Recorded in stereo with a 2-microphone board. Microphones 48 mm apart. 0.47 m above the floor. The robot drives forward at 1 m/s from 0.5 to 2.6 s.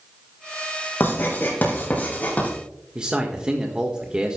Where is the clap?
I don't hear a clap.